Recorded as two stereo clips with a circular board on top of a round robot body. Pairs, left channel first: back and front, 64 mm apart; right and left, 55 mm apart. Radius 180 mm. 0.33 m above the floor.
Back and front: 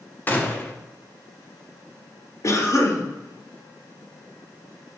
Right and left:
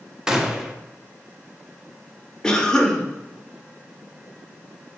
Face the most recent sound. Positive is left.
turn(degrees=-165)